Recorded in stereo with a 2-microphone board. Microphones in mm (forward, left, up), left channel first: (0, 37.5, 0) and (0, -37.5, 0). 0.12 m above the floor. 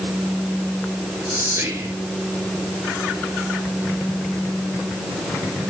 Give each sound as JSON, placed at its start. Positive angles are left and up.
{"t": 1.3, "sound": "whispering", "side_deg": -35, "distance_m": 1.9}